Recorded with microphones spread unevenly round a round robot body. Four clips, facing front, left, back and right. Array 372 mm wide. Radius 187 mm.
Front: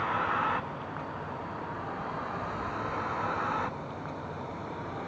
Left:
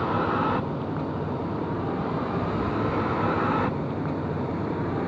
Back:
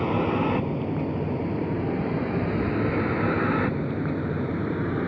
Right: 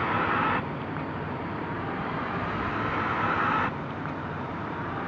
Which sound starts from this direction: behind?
A vehicle, at 0.0 s.